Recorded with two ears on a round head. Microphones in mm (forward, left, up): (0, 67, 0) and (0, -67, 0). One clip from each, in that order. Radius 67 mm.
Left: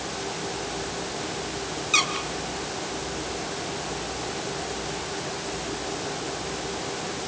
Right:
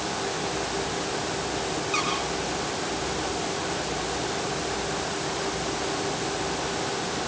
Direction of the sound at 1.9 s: 60° left (ahead or behind).